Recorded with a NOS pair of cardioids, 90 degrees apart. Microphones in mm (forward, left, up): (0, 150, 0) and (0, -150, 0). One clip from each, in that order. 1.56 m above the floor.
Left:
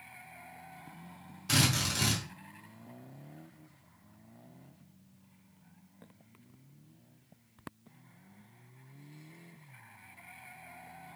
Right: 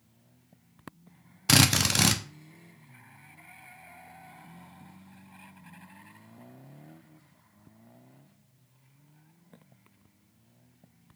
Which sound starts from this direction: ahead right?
A drill, at 1.5 s.